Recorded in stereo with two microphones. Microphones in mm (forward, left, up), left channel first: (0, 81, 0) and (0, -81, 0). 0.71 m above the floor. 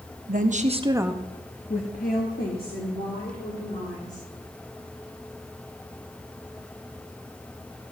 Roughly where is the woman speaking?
Right.